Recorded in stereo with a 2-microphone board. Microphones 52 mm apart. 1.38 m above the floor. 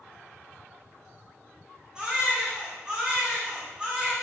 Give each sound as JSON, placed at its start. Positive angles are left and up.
{"t": 1.9, "sound": "a baby crying", "side_deg": -15, "distance_m": 4.5}